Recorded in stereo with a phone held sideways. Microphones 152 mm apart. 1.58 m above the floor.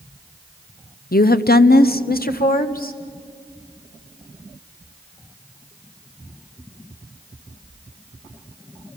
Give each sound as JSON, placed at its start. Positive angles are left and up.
{"t": 1.1, "sound": "a woman speaking", "side_deg": 75, "distance_m": 0.8}